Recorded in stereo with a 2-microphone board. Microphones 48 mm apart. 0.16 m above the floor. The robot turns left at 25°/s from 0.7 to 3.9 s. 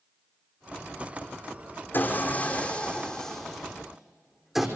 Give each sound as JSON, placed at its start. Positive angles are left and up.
{"t": 1.9, "sound": "sawing", "azimuth_deg": 40, "distance_m": 3.0}